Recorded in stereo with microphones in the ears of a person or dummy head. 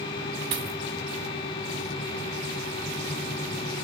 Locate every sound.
0.5 s a dropped coin: 25° right (ahead or behind), 0.7 m